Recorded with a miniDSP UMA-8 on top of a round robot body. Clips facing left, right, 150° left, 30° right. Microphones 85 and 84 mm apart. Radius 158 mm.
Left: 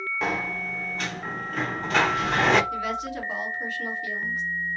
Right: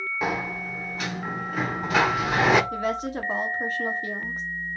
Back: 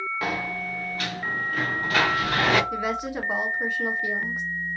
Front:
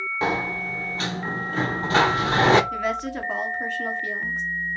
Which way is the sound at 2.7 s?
135° right.